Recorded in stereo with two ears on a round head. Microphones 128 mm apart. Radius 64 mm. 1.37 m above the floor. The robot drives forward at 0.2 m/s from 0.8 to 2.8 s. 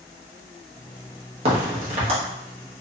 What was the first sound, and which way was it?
A crack, 45° right (ahead or behind).